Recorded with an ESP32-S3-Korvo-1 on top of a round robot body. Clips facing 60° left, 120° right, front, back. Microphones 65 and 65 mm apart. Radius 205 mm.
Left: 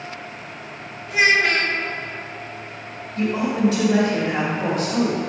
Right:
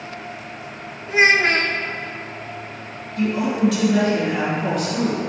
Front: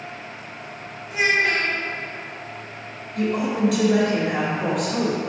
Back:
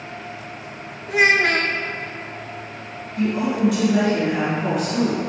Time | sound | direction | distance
1.1 | a child speaking | 170° right | 1.0 m
3.1 | a woman speaking | 5° left | 2.5 m